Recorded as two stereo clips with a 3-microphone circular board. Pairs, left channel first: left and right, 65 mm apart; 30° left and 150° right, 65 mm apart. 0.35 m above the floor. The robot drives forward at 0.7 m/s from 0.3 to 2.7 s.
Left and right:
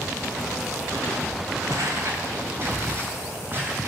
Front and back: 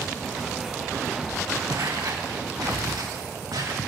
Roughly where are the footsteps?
Behind right.